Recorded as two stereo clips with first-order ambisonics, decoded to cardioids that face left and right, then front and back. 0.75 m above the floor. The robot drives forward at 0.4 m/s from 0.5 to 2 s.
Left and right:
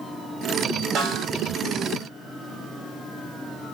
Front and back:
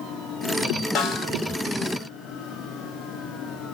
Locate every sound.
0.9 s a snare drum: 35° right, 0.8 m; by 1.3 s 40° right, 0.7 m